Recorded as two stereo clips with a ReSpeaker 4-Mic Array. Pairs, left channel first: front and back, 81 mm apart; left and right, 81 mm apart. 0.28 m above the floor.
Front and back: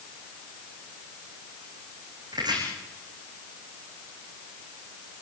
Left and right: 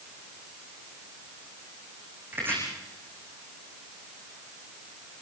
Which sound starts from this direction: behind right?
Chopping, at 2.3 s.